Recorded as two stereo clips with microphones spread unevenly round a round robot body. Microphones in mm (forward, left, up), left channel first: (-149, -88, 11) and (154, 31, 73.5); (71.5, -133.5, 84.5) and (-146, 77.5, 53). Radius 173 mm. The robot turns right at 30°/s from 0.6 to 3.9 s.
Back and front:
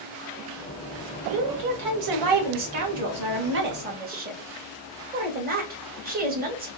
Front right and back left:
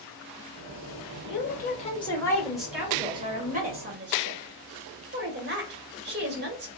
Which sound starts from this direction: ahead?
A woman speaking, at 1.2 s.